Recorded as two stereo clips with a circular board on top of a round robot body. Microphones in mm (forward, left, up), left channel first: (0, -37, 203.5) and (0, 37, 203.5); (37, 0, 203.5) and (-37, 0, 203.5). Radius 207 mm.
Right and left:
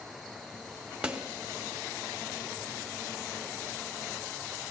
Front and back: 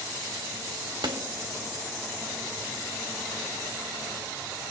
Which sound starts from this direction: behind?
A snare drum, at 1.0 s.